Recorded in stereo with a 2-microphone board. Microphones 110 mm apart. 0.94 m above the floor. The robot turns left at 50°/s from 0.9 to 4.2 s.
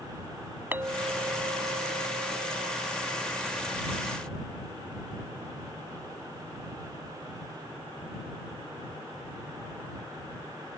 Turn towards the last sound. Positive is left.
turn(degrees=175)